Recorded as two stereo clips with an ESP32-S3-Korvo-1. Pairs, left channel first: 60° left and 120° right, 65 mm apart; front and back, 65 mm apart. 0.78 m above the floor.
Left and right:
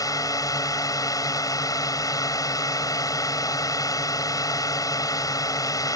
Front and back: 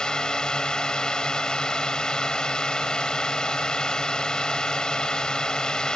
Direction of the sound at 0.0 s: 75° left.